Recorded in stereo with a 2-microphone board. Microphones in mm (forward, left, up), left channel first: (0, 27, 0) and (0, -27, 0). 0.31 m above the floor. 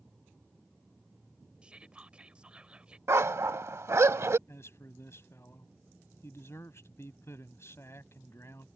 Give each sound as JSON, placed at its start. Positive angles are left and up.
{"t": 1.6, "sound": "whispering", "side_deg": -20}
{"t": 3.1, "sound": "a dog barking", "side_deg": -60}
{"t": 4.5, "sound": "a man speaking", "side_deg": 55}